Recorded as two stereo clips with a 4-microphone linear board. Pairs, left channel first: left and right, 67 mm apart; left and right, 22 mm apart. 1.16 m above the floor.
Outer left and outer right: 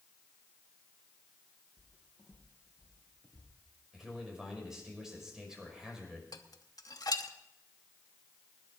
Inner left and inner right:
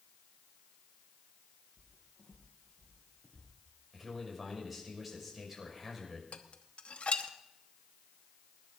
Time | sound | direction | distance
1.8 | footsteps | 45° left (ahead or behind) | 4 m
3.9 | a man speaking | 10° right (ahead or behind) | 5.5 m
6.3 | dishes clattering | 70° left (ahead or behind) | 1.0 m